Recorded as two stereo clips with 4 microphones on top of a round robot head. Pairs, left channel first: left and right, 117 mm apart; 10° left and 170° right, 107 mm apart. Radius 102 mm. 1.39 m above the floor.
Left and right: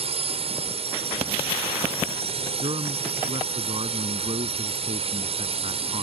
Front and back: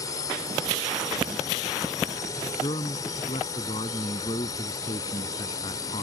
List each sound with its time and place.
0.0 s a drone: 55° right
2.6 s a man speaking: 45° right